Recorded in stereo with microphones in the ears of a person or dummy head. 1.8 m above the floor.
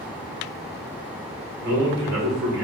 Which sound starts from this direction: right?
A man speaking, at 1.6 s.